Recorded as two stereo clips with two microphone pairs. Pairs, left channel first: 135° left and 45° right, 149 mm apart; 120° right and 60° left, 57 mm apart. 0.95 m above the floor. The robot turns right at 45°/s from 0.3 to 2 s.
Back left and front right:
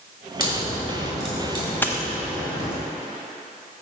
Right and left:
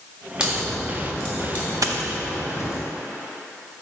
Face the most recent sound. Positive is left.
turn(degrees=70)